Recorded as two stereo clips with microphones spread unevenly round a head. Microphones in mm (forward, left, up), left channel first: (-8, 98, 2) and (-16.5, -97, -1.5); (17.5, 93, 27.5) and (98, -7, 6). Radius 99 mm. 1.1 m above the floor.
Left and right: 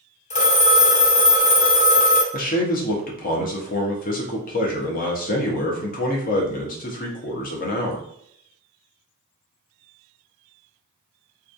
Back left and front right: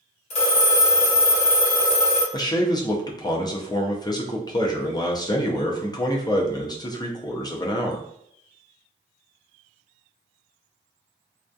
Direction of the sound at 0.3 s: 135° left.